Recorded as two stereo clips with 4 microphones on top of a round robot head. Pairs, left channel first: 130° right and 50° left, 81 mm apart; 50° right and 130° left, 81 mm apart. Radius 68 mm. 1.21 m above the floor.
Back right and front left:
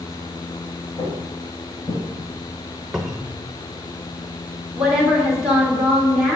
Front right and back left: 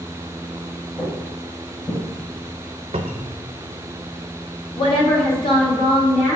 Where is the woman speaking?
30° right, 2.5 m.